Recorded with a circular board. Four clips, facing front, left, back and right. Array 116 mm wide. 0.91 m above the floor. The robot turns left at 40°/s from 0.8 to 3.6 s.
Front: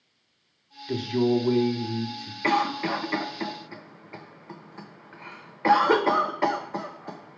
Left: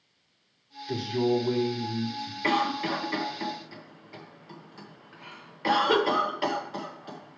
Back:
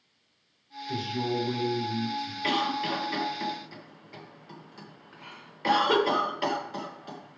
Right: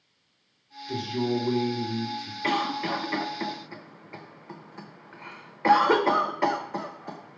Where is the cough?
5° left, 1.0 m; by 7.4 s 40° right, 1.0 m.